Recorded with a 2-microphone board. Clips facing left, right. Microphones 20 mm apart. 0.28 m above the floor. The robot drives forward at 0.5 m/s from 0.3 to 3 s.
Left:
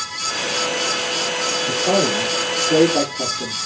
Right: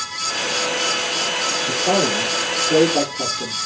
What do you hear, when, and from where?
1.7 s a man speaking: centre (ahead or behind), 4 m